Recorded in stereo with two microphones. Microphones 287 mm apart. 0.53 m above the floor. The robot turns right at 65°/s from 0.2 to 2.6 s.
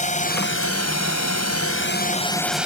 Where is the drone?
25° left; by 2.7 s 175° right.